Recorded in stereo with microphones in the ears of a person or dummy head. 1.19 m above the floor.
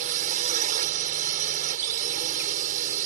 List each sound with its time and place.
0.0 s a drone: 45° right (ahead or behind)